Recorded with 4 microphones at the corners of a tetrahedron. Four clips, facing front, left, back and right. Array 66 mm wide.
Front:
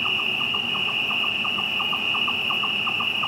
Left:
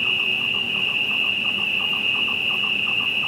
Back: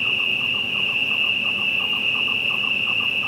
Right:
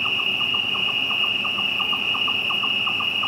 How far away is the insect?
About 2.5 m.